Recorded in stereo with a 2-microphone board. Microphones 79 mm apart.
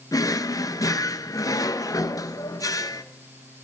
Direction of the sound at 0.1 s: 45° left (ahead or behind).